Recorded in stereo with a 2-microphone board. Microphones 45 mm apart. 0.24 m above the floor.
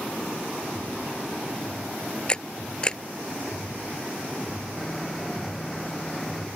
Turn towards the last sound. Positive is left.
turn(degrees=5)  # may be behind; listen again after turning